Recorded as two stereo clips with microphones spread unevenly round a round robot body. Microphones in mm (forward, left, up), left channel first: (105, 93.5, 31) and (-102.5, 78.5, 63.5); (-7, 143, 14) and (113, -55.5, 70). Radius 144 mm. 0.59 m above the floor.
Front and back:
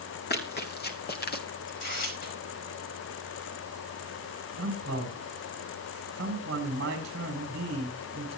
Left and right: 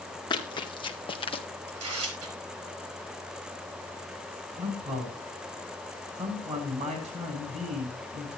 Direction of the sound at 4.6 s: 125° right.